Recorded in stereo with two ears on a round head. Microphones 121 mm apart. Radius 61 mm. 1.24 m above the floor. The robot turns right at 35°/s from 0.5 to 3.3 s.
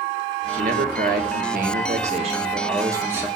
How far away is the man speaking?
About 1.5 m.